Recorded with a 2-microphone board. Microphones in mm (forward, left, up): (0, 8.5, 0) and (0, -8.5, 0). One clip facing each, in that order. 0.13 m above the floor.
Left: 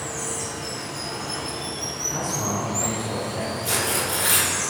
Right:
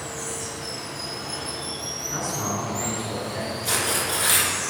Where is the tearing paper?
15° right (ahead or behind), 1.0 m.